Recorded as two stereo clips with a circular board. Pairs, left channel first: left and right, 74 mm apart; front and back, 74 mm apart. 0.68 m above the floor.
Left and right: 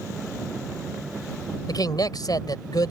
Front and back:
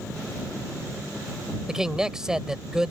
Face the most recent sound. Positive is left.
turn(degrees=100)